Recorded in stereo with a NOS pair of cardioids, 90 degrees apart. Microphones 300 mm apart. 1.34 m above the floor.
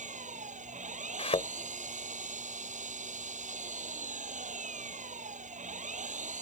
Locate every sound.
0.0 s an engine running: 25° right
1.2 s a thud: 20° left